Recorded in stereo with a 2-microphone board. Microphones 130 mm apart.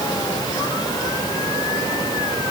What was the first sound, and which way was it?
Only background noise.